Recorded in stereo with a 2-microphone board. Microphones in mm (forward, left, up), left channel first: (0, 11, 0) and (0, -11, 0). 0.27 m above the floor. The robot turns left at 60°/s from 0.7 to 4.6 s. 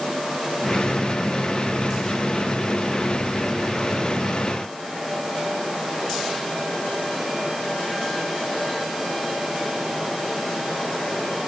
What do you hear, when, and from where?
Only background noise.